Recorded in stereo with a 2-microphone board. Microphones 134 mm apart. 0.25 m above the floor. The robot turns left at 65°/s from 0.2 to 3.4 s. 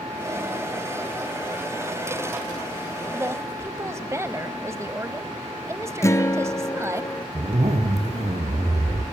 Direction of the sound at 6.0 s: 20° left (ahead or behind).